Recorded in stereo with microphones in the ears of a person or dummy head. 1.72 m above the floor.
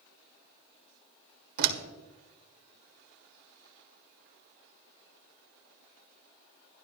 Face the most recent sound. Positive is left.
turn(degrees=-65)  # may be behind; listen again after turning